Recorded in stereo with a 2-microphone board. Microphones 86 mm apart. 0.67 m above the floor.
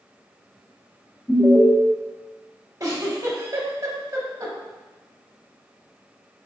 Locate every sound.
1.3 s an alarm: 15° left (ahead or behind), 0.6 m
2.8 s a giggle: 40° right (ahead or behind), 0.7 m